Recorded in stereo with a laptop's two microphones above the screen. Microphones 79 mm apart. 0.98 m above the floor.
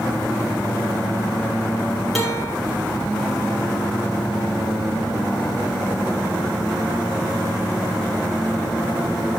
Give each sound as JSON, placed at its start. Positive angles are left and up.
{"t": 2.1, "sound": "a guitar", "side_deg": 0, "distance_m": 5.0}